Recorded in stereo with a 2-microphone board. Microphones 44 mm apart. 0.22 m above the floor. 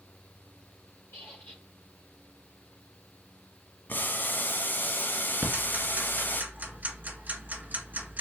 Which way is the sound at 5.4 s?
40° right (ahead or behind).